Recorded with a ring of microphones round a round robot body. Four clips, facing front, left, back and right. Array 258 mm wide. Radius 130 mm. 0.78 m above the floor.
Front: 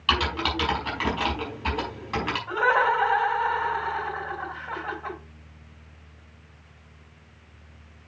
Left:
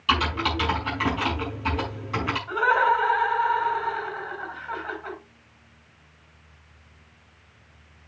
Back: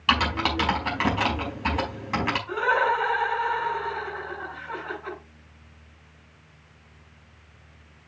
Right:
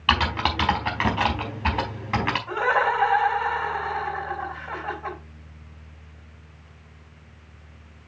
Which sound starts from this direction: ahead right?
Laughter, at 2.5 s.